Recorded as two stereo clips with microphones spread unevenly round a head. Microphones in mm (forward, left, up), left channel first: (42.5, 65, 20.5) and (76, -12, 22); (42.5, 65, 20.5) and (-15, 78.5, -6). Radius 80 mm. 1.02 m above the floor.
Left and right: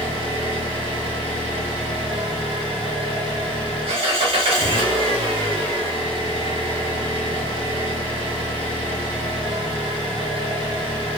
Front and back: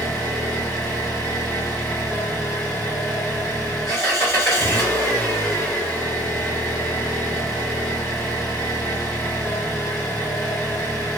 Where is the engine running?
75° right, 0.9 m.